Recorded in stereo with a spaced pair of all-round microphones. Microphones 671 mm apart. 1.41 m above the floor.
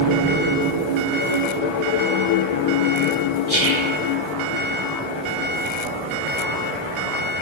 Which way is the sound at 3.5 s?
55° left (ahead or behind).